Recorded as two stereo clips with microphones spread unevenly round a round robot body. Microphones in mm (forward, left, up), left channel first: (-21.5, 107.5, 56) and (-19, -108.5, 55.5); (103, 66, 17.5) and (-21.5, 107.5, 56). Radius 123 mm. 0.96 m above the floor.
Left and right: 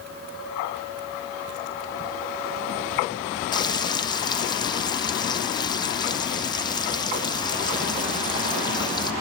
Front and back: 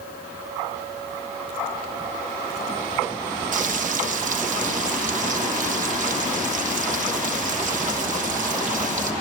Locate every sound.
3.5 s frying: 155° left, 0.9 m